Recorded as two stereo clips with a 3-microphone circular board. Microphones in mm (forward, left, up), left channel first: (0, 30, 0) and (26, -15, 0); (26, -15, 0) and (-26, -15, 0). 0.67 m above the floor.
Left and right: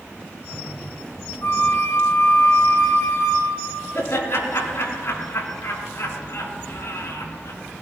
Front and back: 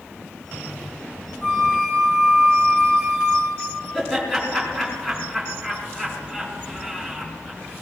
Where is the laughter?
85° left, 5.5 m.